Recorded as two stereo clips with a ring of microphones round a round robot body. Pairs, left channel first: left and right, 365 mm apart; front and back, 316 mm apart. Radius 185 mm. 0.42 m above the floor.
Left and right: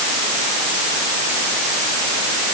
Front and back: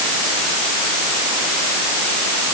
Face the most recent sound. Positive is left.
No sound to turn to.